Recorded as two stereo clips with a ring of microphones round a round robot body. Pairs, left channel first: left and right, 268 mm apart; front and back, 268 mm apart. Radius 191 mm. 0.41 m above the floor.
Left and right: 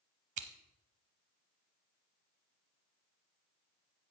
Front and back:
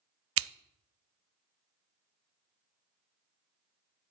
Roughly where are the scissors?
Behind right.